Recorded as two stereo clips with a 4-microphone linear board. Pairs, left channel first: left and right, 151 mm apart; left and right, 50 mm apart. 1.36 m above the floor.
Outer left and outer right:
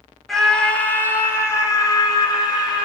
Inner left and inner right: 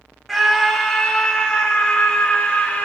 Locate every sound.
0.3 s a scream: centre (ahead or behind), 3 m; by 2.9 s 30° left (ahead or behind), 5 m